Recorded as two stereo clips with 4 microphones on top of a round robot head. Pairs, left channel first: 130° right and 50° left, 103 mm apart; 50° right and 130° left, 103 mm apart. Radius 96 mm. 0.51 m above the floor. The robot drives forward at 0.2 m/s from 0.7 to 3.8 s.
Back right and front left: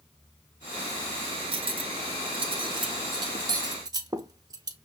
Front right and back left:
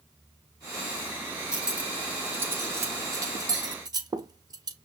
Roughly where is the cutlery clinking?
Ahead left.